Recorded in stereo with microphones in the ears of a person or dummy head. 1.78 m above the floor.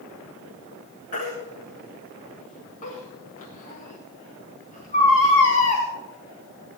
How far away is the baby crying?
About 2.5 m.